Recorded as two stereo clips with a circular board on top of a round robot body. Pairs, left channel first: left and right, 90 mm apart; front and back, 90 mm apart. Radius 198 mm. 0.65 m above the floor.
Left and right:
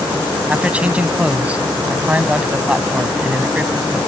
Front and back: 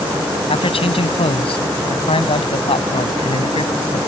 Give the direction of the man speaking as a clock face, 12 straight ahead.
12 o'clock.